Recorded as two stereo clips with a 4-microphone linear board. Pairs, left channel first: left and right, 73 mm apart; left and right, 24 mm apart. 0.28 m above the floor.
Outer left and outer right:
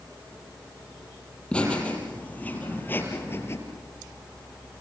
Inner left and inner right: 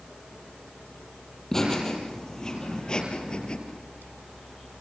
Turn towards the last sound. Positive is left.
turn(degrees=35)  # may be behind; listen again after turning